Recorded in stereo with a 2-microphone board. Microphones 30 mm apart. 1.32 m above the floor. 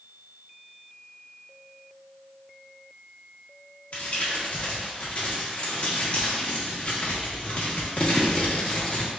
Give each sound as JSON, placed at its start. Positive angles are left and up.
{"t": 3.9, "sound": "crumpling", "side_deg": 50, "distance_m": 1.2}